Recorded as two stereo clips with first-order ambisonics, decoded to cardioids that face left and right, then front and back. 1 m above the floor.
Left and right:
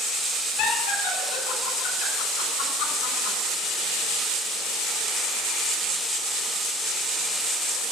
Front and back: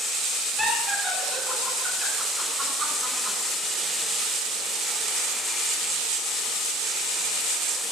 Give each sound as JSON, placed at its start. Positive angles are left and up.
{"t": 0.6, "sound": "laughter", "azimuth_deg": 90, "distance_m": 5.0}